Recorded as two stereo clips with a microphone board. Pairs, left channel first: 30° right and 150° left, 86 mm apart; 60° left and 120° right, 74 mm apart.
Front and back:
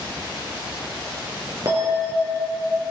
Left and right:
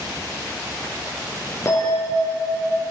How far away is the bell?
About 2.5 m.